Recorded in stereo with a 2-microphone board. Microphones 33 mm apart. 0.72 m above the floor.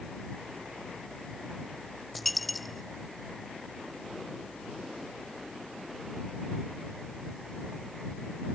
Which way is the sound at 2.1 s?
Centre (ahead or behind).